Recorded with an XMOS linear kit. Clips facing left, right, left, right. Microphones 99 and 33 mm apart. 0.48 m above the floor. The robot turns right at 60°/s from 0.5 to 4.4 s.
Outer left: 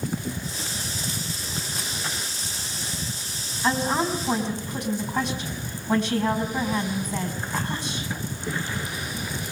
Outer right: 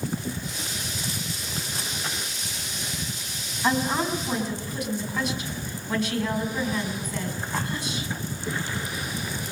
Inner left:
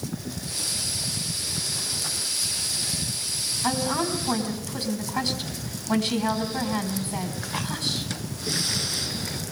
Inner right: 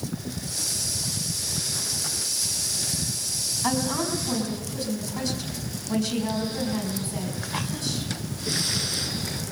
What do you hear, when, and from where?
3.6 s a woman speaking: 15° right, 4.5 m; by 8.1 s 30° left, 4.5 m